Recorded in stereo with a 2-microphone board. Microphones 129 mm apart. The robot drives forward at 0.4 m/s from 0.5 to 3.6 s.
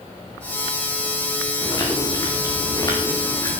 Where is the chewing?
30° left (ahead or behind), 5 m; by 3.6 s 25° left (ahead or behind), 6 m.